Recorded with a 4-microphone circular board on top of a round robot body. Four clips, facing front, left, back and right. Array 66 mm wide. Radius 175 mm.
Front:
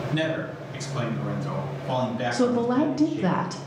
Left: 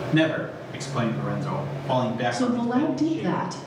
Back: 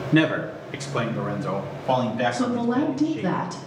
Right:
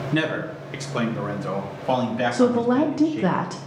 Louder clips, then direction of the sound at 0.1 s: Left 2 dB, back 8 dB; 165° right.